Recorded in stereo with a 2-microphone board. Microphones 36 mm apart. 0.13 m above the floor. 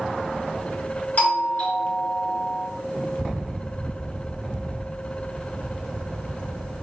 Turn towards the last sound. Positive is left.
turn(degrees=55)  # may be behind; listen again after turning